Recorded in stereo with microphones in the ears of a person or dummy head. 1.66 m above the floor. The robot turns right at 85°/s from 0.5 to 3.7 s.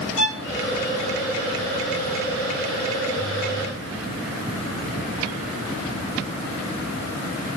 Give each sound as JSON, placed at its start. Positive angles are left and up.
{"t": 0.2, "sound": "a violin", "side_deg": 90, "distance_m": 3.5}